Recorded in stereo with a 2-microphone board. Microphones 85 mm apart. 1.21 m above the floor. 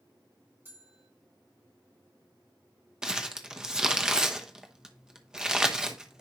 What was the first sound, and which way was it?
A bell, 25° right (ahead or behind).